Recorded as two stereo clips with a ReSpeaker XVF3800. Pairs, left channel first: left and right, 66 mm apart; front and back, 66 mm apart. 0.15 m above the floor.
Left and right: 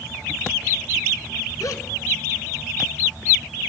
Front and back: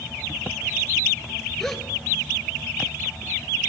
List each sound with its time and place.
1.6 s a gasp: 80° left, 1.2 m